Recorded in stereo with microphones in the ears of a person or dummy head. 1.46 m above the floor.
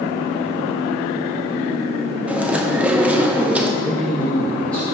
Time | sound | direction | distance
2.3 | chewing | 5° right (ahead or behind) | 0.6 m
3.8 | a man speaking | 5° left (ahead or behind) | 1.8 m